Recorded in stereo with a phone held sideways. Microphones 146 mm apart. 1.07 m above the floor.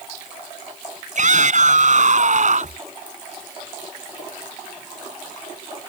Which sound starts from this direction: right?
A shout, at 1.1 s.